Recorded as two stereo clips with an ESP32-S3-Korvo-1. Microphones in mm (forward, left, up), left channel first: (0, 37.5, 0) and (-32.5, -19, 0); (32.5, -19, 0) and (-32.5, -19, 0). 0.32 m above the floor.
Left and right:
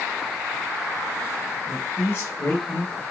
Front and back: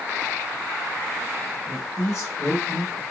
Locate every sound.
1.7 s a man speaking: 20° left, 1.3 m